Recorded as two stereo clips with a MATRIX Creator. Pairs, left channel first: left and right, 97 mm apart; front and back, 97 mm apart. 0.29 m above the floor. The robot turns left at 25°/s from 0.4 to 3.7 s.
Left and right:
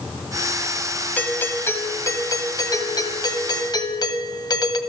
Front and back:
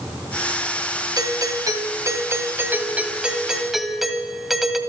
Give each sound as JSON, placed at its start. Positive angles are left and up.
{"t": 1.2, "sound": "a doorbell", "azimuth_deg": 155, "distance_m": 1.9}